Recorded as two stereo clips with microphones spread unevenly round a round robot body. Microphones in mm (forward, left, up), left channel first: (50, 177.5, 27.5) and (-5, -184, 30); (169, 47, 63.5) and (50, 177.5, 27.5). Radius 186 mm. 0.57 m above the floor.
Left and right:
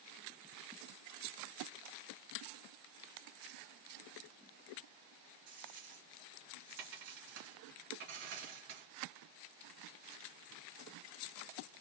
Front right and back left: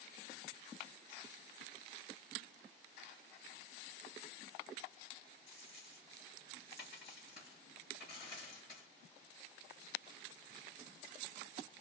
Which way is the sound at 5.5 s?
130° right.